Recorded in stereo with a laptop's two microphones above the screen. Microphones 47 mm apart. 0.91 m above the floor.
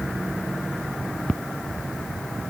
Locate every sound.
Only background noise.